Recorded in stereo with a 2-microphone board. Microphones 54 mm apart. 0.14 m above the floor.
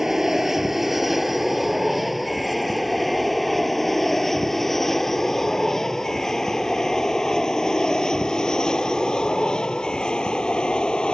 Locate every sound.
0.0 s an aircraft: 5° right (ahead or behind); by 11.2 s 15° left (ahead or behind)